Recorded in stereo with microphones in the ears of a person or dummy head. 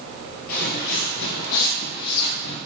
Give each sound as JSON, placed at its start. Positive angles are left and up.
{"t": 0.5, "sound": "footsteps", "side_deg": 50, "distance_m": 1.7}